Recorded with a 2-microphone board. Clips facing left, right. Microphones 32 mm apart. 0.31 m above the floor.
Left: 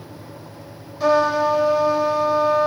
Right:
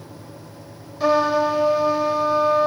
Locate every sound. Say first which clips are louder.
1.0 s a trumpet: left 1 dB; 5° right (ahead or behind), 1.2 m